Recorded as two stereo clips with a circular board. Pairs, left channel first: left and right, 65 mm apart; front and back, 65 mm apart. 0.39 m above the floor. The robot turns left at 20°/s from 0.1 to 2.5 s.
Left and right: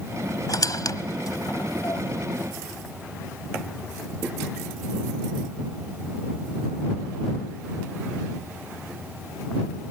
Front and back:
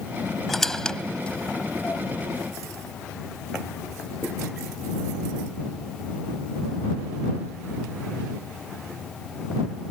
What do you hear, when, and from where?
0.5 s a squeak: 90° left; by 2.0 s 60° left